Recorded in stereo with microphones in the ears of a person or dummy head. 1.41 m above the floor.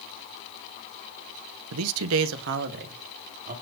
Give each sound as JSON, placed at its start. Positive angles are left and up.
{"t": 1.7, "sound": "a man speaking", "side_deg": -75, "distance_m": 0.8}